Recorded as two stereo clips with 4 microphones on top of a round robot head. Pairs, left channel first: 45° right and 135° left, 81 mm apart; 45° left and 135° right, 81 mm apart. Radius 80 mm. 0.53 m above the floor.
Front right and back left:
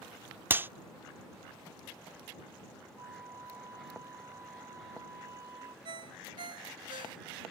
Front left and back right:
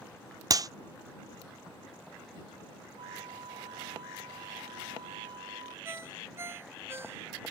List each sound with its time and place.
0.5 s a clap: 165° right
3.0 s a flute: 170° right
5.8 s a ringtone: 165° left